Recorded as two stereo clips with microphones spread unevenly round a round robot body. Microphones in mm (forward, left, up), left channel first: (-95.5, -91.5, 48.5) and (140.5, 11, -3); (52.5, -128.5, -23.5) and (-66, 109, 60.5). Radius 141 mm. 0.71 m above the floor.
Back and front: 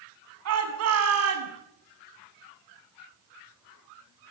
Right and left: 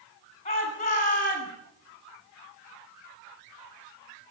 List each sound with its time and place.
0.5 s a shout: straight ahead, 8 m; by 1.5 s 5° right, 7 m